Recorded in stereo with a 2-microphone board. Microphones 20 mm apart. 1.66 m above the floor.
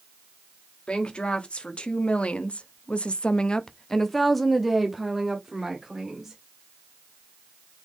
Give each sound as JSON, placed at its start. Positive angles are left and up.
{"t": 0.9, "sound": "a woman speaking", "side_deg": 55, "distance_m": 1.4}